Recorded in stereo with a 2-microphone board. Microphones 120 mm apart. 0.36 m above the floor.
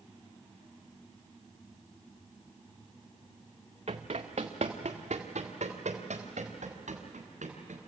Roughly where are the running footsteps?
Right.